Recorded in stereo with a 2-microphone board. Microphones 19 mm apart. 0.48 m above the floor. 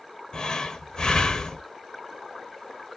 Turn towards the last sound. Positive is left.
turn(degrees=40)  # may be behind; listen again after turning